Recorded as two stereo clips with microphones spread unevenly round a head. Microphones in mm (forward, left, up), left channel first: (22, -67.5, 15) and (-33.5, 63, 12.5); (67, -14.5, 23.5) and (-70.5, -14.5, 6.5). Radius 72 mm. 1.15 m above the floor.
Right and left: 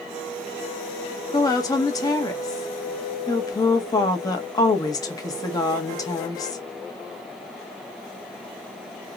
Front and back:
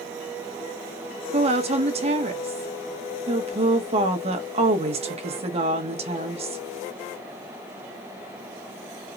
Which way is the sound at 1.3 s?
135° right.